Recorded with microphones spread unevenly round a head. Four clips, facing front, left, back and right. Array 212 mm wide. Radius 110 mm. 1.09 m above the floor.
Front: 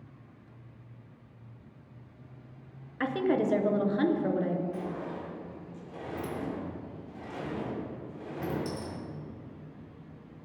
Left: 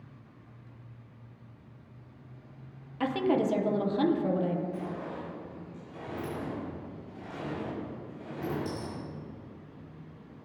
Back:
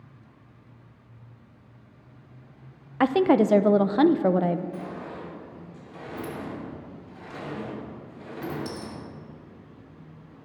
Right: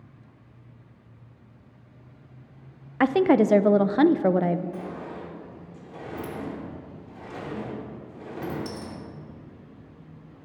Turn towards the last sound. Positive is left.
turn(degrees=-80)